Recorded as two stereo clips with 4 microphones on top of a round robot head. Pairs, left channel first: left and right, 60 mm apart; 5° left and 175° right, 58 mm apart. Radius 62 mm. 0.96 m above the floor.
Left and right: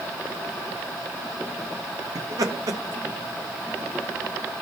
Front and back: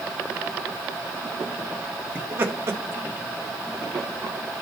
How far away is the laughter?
About 1.8 m.